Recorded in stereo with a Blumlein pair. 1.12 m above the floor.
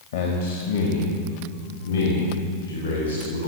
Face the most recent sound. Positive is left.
turn(degrees=75)